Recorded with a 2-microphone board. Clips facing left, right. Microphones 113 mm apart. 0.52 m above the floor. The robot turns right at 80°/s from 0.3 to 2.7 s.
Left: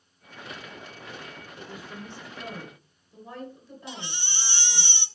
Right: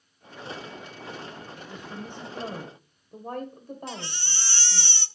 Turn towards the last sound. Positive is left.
turn(degrees=15)  # may be behind; listen again after turning